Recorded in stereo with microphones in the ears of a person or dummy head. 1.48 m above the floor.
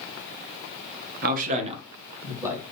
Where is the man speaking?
60° right (ahead or behind), 1.0 m; by 2.6 s 15° right (ahead or behind), 2 m.